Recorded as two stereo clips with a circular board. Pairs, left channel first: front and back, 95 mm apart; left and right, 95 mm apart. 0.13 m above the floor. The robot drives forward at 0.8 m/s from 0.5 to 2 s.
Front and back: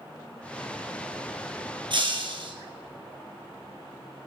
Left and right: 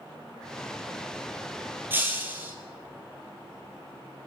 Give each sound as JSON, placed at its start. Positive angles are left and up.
{"t": 1.9, "sound": "breaking glass", "azimuth_deg": -155, "distance_m": 1.9}